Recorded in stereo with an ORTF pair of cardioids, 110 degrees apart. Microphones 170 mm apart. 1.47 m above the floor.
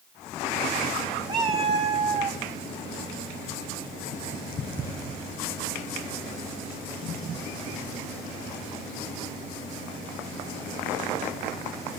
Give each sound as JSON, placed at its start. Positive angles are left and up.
{"t": 1.3, "sound": "a cat meowing", "azimuth_deg": -30, "distance_m": 2.5}